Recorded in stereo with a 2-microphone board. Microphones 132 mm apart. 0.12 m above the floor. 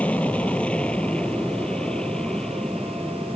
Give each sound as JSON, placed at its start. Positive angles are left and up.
{"t": 0.0, "sound": "an aircraft", "side_deg": 10}